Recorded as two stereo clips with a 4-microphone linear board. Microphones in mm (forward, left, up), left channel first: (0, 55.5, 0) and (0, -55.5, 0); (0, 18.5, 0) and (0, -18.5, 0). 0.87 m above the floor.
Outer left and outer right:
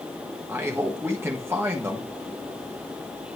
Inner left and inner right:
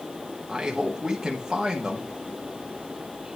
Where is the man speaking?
20° right (ahead or behind), 1.5 m.